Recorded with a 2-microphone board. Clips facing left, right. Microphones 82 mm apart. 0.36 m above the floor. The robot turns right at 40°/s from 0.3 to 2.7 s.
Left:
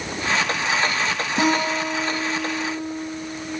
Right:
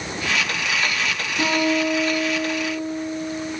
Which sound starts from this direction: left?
A guitar, at 1.4 s.